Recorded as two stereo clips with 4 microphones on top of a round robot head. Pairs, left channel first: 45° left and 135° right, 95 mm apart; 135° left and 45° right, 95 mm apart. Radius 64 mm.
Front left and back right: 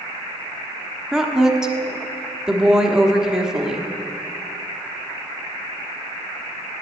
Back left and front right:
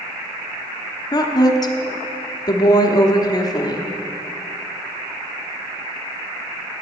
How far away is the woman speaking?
About 1.0 m.